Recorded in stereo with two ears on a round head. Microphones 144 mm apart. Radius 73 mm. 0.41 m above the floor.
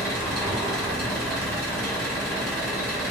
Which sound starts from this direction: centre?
An engine running, at 0.0 s.